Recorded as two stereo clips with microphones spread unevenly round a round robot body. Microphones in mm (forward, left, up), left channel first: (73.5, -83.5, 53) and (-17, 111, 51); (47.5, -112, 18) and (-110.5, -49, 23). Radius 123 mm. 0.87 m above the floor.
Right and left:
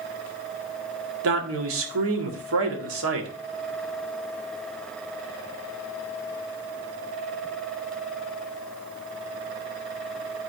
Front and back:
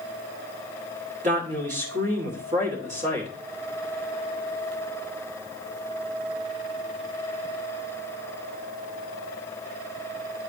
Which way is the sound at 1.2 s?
100° left.